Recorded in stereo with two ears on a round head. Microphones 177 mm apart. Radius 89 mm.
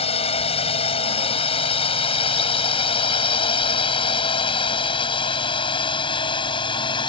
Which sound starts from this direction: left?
A drone, at 0.0 s.